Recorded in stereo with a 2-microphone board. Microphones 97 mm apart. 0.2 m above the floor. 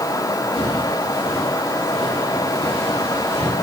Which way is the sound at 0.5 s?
75° left (ahead or behind).